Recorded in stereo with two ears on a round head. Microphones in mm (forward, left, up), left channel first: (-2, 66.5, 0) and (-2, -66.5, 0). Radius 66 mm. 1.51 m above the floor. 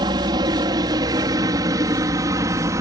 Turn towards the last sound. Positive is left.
turn(degrees=-20)  # may be behind; listen again after turning